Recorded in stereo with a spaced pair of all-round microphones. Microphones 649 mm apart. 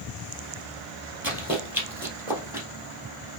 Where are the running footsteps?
5° right (ahead or behind), 1.8 m.